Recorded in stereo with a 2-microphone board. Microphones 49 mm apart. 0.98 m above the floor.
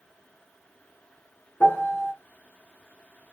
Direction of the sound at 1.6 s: 50° left (ahead or behind).